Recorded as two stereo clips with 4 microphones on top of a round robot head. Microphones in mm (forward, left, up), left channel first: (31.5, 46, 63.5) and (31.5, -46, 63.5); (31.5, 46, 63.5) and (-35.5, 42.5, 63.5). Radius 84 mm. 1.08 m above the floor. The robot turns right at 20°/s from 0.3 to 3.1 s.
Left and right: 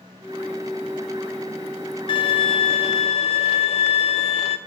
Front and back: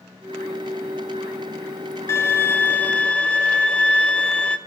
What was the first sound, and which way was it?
A violin, 55° left.